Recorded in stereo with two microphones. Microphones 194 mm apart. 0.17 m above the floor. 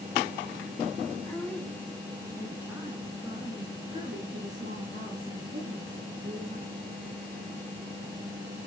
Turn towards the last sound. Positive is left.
turn(degrees=-45)  # may be behind; listen again after turning